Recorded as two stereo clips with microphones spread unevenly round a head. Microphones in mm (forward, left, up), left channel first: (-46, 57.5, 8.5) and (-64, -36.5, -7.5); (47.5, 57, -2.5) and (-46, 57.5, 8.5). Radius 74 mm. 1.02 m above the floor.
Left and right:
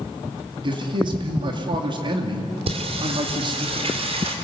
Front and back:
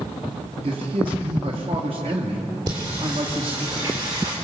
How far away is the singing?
About 3 m.